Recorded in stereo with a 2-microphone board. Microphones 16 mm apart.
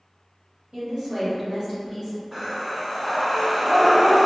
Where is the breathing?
30° right (ahead or behind), 1.8 m.